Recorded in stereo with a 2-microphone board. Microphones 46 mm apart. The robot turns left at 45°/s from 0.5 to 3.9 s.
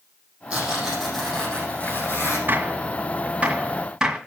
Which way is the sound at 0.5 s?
155° right.